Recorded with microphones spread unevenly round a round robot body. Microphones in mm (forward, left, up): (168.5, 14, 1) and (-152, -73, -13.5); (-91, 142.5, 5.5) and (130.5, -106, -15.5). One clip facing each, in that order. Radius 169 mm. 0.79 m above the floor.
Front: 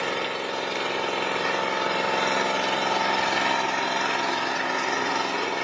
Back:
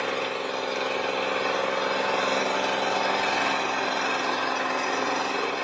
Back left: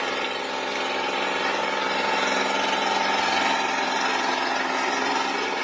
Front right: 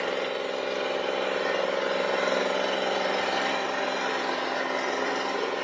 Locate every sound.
0.0 s an engine running: 70° left, 0.8 m